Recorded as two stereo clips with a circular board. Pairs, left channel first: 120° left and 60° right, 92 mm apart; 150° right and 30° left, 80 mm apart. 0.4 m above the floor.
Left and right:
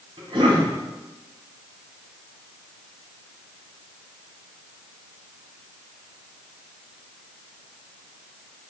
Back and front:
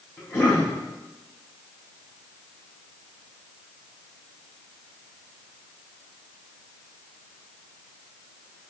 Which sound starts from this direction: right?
A cough, at 0.2 s.